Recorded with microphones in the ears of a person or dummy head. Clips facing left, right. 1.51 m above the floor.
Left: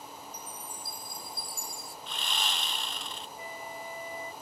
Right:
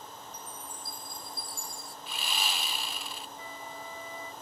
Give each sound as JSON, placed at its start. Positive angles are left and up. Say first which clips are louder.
{"t": 0.3, "sound": "a chime", "louder": "left 1 dB", "side_deg": 70}
{"t": 2.1, "sound": "sawing", "louder": "right 1 dB", "side_deg": -10}
{"t": 3.4, "sound": "a flute", "louder": "left 2 dB", "side_deg": 15}